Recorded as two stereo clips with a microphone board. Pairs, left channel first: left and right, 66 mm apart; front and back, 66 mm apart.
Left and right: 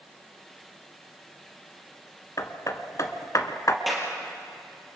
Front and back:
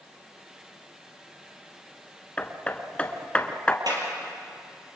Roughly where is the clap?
Behind.